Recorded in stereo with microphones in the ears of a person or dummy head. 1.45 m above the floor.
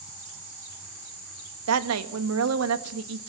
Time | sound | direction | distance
1.7 | a woman speaking | 80° right | 1.8 m